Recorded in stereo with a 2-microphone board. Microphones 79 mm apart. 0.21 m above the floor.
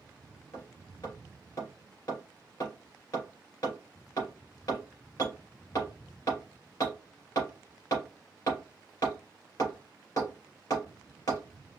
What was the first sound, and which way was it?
Hammering, 45° left (ahead or behind).